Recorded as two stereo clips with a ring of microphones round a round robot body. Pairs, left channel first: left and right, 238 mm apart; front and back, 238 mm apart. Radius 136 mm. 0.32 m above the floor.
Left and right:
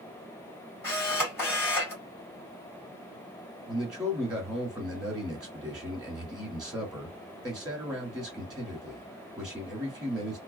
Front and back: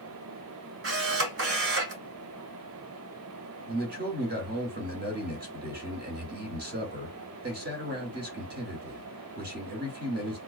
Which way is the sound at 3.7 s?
175° right.